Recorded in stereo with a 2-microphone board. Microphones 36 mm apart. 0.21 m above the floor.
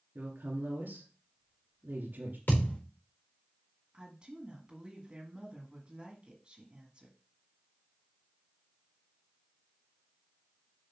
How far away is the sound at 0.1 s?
About 2.5 m.